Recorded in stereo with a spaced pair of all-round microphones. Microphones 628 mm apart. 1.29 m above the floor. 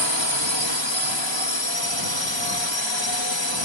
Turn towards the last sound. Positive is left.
turn(degrees=45)  # may be behind; listen again after turning